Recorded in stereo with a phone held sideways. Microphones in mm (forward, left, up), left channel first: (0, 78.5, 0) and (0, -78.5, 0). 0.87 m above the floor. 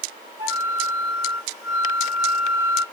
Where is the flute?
45° right (ahead or behind), 1.1 m.